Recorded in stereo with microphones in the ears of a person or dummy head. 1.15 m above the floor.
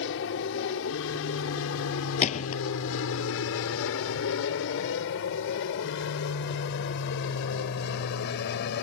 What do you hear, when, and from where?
0.0 s an aircraft: 65° left (ahead or behind); by 8.8 s 60° left (ahead or behind)
2.2 s a gunshot: 40° left (ahead or behind)